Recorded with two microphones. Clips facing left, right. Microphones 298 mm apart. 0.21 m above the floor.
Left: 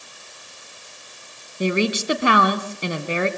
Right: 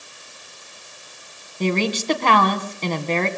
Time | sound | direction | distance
1.6 | a woman speaking | 10° left (ahead or behind) | 1.6 m